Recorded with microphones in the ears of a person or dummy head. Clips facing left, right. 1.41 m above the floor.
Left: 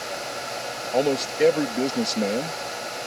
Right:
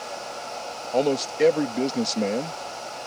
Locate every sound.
0.9 s a man speaking: 5° right (ahead or behind)